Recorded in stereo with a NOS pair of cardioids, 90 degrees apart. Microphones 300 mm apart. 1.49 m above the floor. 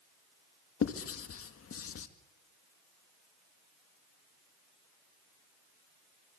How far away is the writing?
About 1.9 m.